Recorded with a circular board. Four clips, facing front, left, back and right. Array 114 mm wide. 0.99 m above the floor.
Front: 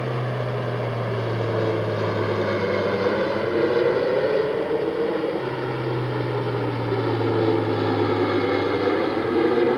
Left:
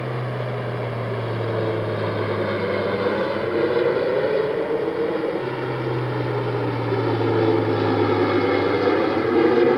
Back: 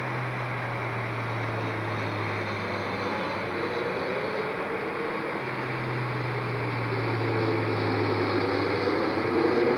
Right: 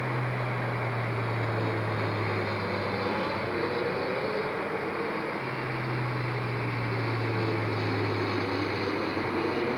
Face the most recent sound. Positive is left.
turn(degrees=75)